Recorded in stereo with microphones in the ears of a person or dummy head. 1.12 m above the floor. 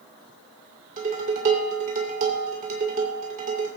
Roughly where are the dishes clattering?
Right.